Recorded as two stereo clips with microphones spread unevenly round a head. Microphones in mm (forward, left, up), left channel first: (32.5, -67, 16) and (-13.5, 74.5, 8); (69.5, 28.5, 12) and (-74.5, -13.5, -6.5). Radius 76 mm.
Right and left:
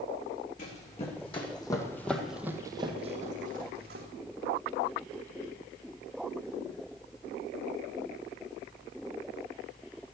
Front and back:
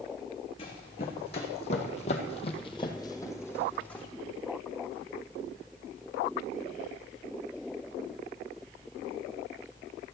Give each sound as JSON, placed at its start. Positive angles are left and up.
{"t": 0.6, "sound": "running footsteps", "azimuth_deg": -35, "distance_m": 3.0}